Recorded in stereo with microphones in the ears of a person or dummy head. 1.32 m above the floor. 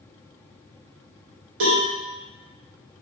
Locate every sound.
1.6 s a cowbell: 65° right (ahead or behind), 1.3 m